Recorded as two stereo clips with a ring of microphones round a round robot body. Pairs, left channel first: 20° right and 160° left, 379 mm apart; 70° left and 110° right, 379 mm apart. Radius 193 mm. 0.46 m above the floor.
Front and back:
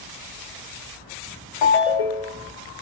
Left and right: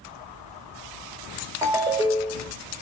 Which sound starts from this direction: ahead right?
A ringtone, at 1.6 s.